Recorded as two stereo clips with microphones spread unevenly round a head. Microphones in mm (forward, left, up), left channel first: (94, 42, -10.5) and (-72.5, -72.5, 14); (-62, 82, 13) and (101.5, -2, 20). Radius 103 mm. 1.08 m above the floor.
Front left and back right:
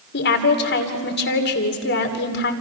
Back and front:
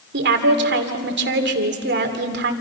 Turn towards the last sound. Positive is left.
turn(degrees=0)